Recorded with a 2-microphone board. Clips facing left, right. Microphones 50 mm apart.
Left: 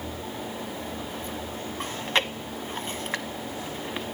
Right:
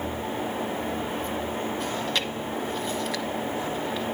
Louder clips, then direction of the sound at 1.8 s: Left 1 dB; 35° left (ahead or behind).